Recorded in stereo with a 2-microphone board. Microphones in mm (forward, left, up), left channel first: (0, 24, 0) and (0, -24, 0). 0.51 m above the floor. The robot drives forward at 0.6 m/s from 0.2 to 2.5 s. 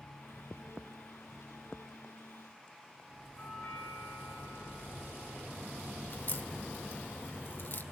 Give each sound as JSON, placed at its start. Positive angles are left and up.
{"t": 3.4, "sound": "a doorbell", "side_deg": 35, "distance_m": 6.0}
{"t": 6.1, "sound": "a crack", "side_deg": 50, "distance_m": 1.7}